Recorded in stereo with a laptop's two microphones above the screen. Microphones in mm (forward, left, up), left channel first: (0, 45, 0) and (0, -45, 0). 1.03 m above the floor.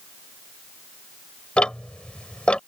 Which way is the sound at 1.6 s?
10° left (ahead or behind).